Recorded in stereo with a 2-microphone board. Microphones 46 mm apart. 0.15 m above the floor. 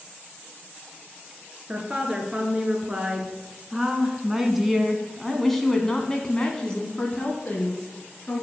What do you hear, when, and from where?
1.7 s a woman speaking: 20° right (ahead or behind), 3 m; by 8.4 s 25° left (ahead or behind), 2 m